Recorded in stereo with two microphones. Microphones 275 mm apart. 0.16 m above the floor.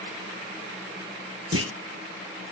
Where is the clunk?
60° right (ahead or behind), 0.7 m.